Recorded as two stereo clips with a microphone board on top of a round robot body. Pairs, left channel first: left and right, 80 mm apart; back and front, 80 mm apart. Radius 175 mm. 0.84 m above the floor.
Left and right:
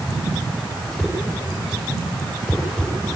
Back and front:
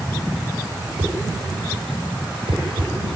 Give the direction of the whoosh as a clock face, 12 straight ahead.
12 o'clock.